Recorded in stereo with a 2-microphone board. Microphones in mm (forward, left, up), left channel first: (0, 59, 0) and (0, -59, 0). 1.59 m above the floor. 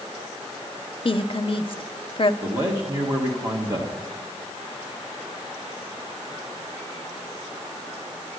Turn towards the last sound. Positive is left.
turn(degrees=-35)  # may be behind; listen again after turning